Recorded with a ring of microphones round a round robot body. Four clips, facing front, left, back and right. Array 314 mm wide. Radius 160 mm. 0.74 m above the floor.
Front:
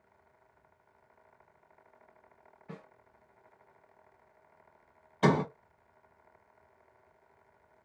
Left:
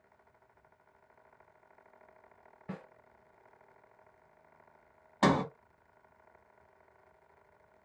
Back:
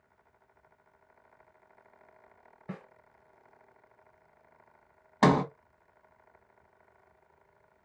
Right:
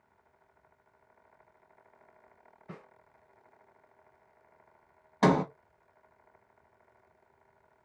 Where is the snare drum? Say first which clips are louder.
Left 4 dB, back 5 dB; 150° left, 1.5 m.